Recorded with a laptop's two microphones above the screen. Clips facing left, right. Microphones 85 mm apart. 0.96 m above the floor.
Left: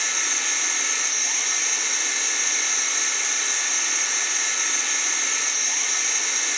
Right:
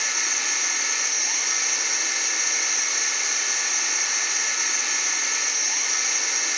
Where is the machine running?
5° right (ahead or behind), 2.5 m.